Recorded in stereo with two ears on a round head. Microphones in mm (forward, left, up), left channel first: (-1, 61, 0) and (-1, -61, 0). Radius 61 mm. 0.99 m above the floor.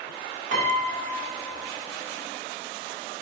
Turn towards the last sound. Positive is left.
turn(degrees=-65)  # may be behind; listen again after turning